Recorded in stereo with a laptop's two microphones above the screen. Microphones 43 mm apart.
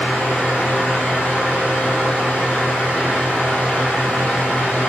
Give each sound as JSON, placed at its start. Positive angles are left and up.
{"t": 0.0, "sound": "a fan", "side_deg": 40, "distance_m": 0.9}